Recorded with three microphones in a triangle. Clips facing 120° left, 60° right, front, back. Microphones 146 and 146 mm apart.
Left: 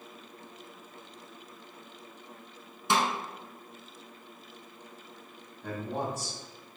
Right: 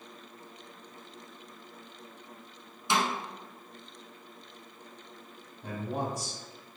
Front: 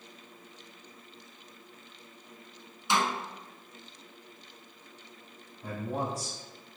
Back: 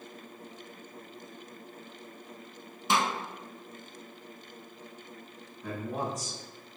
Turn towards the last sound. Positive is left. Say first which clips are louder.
# even, even
turn(degrees=5)